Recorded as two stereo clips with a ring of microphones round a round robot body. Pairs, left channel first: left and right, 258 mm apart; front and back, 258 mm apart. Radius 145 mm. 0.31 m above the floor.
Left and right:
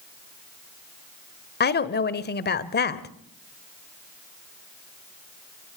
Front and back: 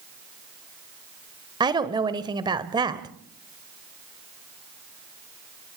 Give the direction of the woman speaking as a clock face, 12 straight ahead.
8 o'clock.